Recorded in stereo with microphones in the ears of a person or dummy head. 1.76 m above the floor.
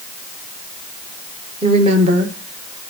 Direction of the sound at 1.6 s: 35° right (ahead or behind).